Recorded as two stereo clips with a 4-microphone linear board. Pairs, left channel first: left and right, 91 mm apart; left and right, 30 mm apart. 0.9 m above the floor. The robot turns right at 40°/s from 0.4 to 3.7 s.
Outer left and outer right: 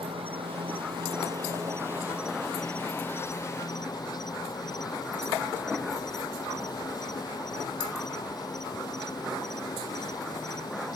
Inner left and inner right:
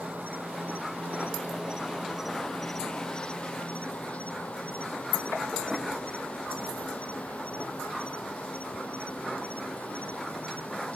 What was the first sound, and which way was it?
An insect, 85° right.